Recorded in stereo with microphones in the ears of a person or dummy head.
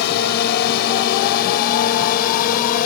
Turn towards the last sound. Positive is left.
turn(degrees=45)  # may be behind; listen again after turning